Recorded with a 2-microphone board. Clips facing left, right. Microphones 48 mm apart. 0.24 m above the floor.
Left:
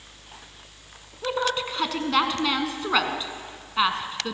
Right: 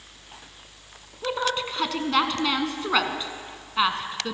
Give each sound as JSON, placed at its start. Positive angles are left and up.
{"t": 1.2, "sound": "a woman speaking", "side_deg": 0, "distance_m": 2.5}